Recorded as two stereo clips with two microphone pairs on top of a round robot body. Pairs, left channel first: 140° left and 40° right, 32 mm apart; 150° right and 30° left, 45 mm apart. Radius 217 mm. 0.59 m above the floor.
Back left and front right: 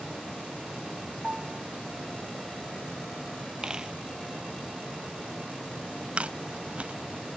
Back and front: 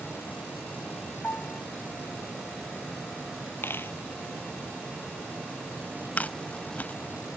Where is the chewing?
95° right.